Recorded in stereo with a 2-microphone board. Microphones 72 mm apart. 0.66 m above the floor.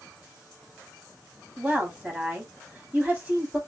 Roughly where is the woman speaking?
Right.